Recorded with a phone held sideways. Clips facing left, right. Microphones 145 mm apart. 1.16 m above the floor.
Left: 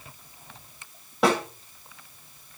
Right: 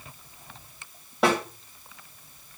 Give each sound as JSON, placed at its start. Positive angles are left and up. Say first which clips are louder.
{"t": 1.2, "sound": "a snare drum", "louder": "left 1 dB", "side_deg": 0, "distance_m": 4.5}